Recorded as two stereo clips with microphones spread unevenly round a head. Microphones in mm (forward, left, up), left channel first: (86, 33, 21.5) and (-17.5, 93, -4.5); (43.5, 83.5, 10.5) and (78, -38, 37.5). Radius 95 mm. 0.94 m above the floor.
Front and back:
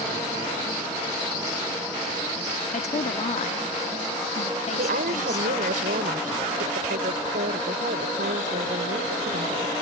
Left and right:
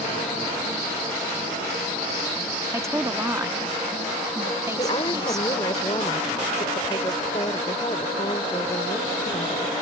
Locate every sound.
2.7 s a woman speaking: 5° right
4.8 s a woman speaking: 175° left